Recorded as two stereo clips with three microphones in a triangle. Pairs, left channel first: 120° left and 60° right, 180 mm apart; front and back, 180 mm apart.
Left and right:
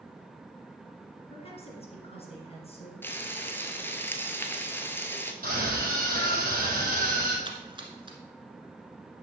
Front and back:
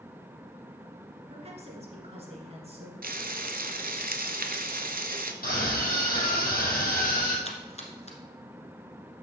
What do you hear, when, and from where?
1.3 s a woman speaking: 150° left, 2 m
3.0 s frying: 165° right, 0.7 m
5.4 s a scream: 30° right, 3.5 m
7.5 s a splash: 15° right, 1.3 m